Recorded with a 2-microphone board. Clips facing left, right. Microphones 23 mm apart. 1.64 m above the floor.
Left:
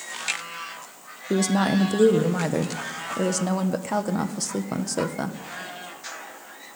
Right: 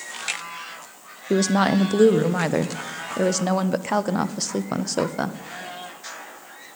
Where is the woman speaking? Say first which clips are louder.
Right 2 dB; 25° right (ahead or behind), 0.6 m.